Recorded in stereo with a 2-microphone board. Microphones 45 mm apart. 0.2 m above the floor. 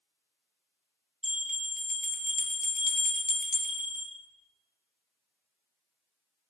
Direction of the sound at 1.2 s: 15° right (ahead or behind).